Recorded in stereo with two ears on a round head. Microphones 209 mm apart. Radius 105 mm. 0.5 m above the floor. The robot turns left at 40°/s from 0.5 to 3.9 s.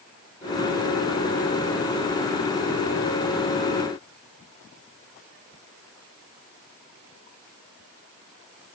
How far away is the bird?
I don't hear a bird.